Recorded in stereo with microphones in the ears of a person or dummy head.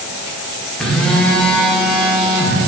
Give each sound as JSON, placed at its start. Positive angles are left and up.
{"t": 0.8, "sound": "a phone buzzing", "side_deg": 10, "distance_m": 1.1}